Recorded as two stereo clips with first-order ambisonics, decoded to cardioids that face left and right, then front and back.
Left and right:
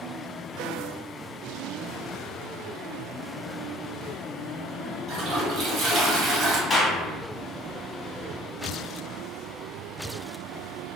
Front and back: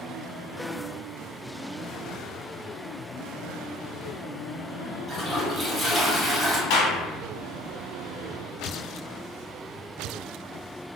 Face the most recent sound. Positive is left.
turn(degrees=10)